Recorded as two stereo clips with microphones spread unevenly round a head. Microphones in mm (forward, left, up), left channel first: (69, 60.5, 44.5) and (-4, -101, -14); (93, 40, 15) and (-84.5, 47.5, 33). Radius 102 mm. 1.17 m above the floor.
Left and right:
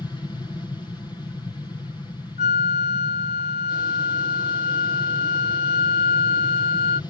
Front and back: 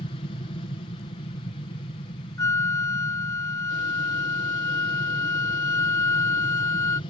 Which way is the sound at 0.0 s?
10° right.